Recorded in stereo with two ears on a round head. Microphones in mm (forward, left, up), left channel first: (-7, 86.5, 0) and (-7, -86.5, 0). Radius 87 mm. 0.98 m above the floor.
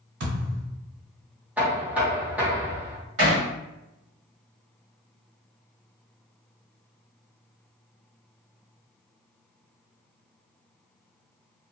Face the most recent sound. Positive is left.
turn(degrees=-70)  # may be behind; listen again after turning